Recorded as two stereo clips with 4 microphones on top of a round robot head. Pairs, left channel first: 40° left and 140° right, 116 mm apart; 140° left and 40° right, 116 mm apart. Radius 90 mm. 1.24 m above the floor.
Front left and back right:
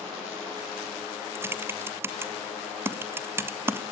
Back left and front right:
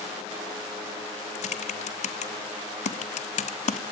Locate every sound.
1.4 s typing on a keyboard: 150° left, 1.6 m